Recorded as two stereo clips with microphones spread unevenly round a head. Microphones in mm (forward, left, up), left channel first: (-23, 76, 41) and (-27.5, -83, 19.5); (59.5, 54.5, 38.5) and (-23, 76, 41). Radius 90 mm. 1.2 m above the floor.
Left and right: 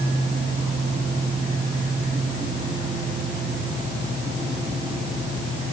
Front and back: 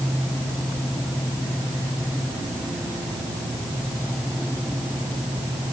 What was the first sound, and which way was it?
Only background noise.